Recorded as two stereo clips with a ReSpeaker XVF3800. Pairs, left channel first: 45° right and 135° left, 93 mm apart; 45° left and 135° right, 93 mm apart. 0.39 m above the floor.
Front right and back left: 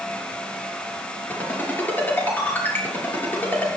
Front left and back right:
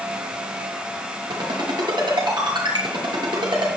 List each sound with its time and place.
1.3 s a ringtone: 110° right, 6 m